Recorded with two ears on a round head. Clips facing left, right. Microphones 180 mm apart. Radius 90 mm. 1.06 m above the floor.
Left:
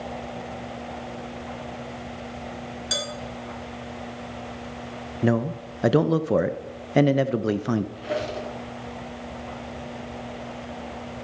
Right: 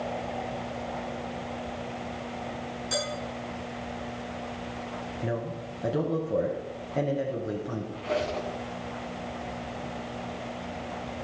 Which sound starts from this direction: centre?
A squeak, at 8.0 s.